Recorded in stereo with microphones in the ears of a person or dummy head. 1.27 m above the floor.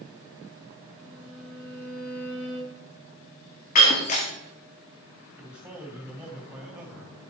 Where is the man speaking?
5° right (ahead or behind), 2.5 m.